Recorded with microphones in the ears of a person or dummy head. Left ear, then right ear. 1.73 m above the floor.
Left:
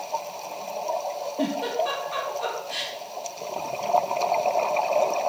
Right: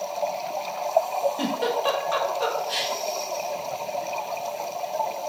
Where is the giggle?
50° right (ahead or behind), 1.9 m.